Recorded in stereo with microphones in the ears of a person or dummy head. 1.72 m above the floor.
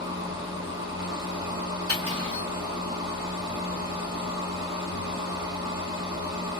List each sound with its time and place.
0.0 s a machine running: 20° right (ahead or behind), 1.2 m
1.9 s cutlery clinking: 20° right (ahead or behind), 0.8 m